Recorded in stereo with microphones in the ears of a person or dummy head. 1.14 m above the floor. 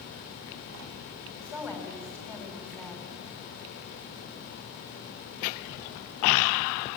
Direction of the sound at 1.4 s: 10° left (ahead or behind).